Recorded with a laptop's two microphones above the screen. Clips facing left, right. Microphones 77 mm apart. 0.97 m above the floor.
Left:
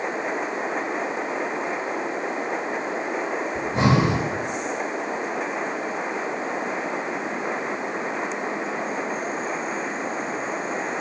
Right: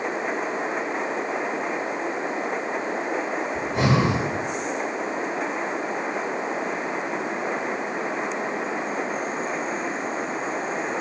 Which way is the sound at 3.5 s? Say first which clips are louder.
Left 2 dB; 30° left (ahead or behind).